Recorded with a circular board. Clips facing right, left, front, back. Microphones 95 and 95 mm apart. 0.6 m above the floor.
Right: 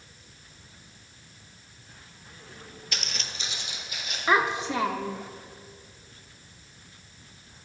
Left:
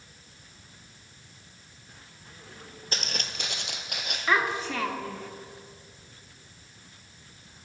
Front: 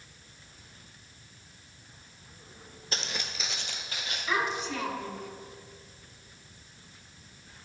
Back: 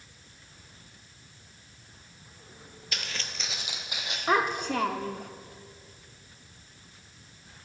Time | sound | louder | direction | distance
2.9 | footsteps | left 3 dB, front 2 dB | 50° left | 0.9 m
4.3 | a child speaking | right 2 dB, back 5 dB | 155° right | 0.9 m